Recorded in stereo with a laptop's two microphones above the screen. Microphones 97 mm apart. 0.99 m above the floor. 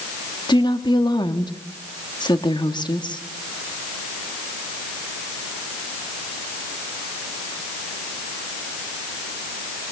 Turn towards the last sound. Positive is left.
turn(degrees=55)  # may be behind; listen again after turning